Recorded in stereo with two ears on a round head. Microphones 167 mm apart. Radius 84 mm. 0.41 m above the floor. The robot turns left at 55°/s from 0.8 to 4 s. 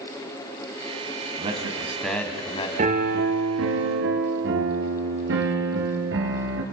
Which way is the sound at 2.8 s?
40° right.